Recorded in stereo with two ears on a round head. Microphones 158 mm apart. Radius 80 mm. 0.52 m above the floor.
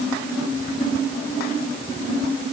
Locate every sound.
Only background noise.